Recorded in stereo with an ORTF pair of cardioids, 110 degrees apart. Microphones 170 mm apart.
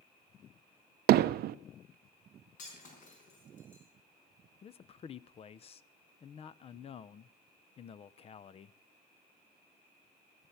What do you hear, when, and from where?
1.1 s hammering: 65° right, 0.6 m
2.6 s breaking glass: 50° left, 5 m
4.6 s a man speaking: 35° left, 0.6 m